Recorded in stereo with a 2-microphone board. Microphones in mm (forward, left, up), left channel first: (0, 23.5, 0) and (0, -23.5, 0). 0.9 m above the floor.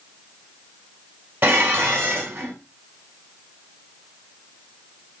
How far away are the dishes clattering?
About 5.5 m.